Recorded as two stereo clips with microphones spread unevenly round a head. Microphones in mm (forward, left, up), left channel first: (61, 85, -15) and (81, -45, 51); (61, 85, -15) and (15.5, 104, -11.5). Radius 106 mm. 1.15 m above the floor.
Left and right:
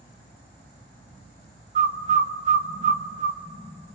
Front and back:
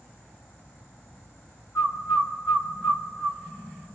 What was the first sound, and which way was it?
A bird, 60° right.